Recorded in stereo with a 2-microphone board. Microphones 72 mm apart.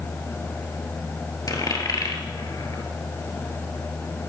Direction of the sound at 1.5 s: 55° left (ahead or behind).